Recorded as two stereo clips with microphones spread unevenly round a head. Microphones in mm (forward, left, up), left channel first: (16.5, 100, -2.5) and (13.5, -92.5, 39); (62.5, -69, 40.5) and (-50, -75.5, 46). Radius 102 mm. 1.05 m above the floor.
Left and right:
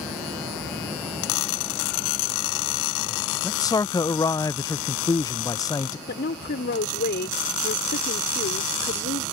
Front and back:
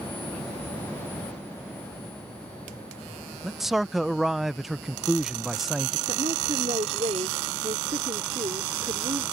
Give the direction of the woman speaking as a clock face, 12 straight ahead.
8 o'clock.